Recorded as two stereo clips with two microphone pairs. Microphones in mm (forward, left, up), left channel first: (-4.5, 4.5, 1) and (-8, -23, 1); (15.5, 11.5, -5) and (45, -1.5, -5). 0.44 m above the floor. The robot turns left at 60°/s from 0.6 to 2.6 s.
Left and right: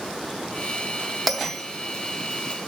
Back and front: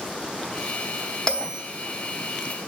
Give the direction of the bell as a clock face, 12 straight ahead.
6 o'clock.